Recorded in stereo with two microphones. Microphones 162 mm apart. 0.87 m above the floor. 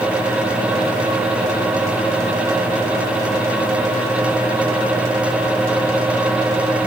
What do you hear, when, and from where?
Only background noise.